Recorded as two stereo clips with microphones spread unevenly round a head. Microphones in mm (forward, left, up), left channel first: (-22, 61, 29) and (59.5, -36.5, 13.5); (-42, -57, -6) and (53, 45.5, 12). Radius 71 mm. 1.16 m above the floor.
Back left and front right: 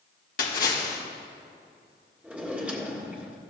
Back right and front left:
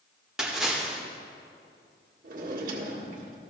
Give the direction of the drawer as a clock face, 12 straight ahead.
11 o'clock.